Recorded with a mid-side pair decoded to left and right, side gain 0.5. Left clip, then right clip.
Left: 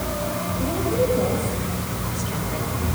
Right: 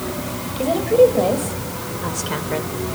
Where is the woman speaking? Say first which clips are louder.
Right 10 dB; 60° right, 5 m.